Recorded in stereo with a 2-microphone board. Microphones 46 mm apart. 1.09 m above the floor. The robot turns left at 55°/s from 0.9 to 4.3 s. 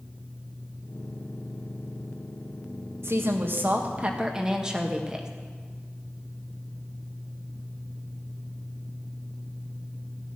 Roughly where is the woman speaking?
Right.